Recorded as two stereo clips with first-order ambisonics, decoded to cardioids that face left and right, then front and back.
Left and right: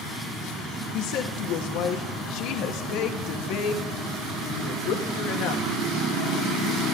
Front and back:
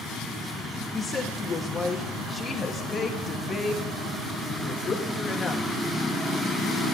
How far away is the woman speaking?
About 1.3 m.